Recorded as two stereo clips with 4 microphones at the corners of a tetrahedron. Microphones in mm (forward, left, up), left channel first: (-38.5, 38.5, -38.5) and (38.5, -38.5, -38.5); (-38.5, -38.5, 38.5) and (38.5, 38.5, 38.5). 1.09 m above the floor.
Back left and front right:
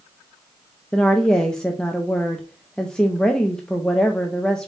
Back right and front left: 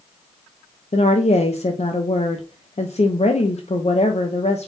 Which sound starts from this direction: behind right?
A woman speaking, at 0.9 s.